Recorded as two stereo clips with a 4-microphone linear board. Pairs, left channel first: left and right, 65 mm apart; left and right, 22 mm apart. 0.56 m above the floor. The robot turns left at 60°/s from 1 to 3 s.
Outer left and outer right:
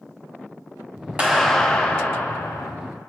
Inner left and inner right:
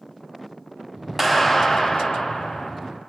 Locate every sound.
1.2 s a clap: 155° right, 4.5 m; by 2.7 s 115° left, 4.5 m